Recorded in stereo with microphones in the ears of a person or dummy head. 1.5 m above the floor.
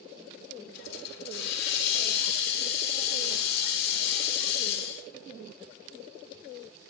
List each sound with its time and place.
0.7 s a hiss: 60° left (ahead or behind), 1.2 m